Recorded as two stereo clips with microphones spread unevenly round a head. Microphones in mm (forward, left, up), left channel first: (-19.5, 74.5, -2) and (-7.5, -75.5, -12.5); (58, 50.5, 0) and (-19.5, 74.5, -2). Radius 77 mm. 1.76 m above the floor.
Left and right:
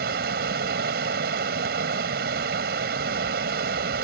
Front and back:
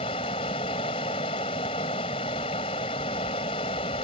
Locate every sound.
0.0 s running water: 55° right